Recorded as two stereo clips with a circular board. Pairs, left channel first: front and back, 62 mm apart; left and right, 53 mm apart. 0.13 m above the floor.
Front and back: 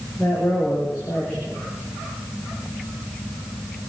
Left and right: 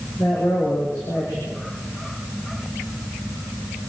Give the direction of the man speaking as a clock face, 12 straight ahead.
9 o'clock.